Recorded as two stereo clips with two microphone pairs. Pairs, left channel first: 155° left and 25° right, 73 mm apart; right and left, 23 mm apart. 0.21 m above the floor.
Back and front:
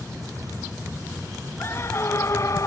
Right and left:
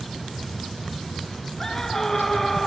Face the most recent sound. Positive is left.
turn(degrees=-170)